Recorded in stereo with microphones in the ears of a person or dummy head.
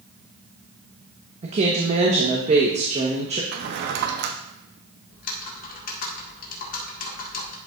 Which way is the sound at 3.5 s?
55° right (ahead or behind).